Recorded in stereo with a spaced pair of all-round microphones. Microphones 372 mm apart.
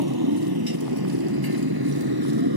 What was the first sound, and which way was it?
A motorcycle, 80° right.